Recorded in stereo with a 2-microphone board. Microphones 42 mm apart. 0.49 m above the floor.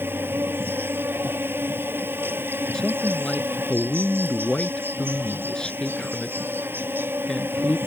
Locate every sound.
0.0 s an insect: 60° right (ahead or behind)
2.7 s a man speaking: 20° left (ahead or behind)